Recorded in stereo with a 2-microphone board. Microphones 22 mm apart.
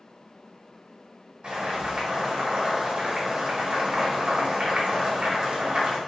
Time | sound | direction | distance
1.4 | boiling | 50° right (ahead or behind) | 1.6 m